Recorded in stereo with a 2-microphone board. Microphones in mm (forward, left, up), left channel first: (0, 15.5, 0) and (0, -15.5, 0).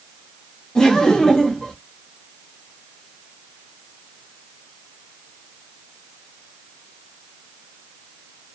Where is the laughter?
20° left (ahead or behind), 0.8 m.